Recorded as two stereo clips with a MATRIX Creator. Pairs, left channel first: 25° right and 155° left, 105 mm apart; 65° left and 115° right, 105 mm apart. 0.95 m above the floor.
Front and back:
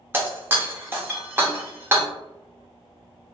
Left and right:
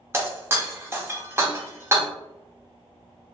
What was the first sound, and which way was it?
Breaking glass, 155° right.